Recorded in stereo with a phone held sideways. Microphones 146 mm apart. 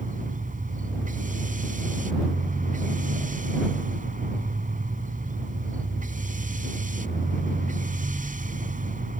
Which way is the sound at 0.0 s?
65° right (ahead or behind).